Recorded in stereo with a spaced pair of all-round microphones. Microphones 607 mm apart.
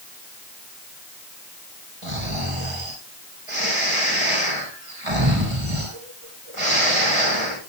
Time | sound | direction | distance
2.0 | snoring | 55° right (ahead or behind) | 5.5 m